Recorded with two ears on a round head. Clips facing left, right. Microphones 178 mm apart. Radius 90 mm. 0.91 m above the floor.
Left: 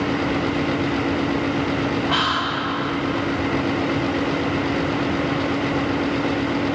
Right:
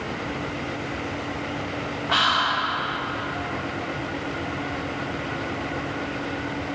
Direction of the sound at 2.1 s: Centre (ahead or behind).